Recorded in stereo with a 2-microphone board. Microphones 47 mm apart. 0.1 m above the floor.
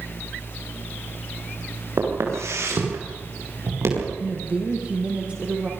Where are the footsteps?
75° right (ahead or behind), 6.5 m.